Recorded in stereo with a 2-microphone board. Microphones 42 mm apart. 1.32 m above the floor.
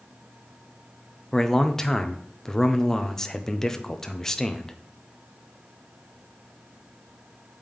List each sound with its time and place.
1.3 s a man speaking: 10° left (ahead or behind), 0.7 m